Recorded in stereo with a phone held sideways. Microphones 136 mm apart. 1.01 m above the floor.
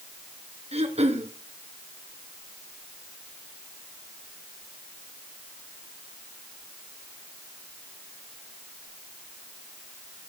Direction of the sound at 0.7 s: 50° right (ahead or behind).